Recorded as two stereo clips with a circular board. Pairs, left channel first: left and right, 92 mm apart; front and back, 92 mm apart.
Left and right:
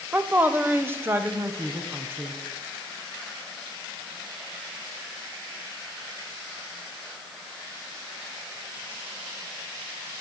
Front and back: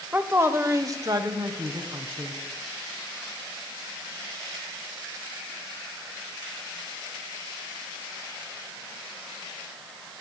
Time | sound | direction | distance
0.1 | a woman speaking | 135° right | 0.9 m